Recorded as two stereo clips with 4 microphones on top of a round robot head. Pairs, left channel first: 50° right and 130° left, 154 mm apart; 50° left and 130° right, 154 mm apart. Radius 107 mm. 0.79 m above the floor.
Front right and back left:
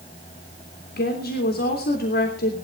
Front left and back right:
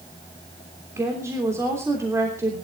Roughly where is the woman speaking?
Ahead right.